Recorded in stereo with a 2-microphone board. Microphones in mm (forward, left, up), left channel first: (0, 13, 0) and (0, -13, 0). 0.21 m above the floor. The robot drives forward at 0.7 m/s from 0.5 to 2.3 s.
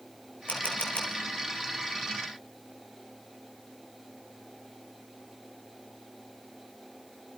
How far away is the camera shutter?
About 5 m.